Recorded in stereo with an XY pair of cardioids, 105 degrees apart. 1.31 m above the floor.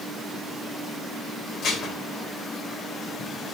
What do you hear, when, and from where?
1.6 s dishes clattering: 65° left, 5 m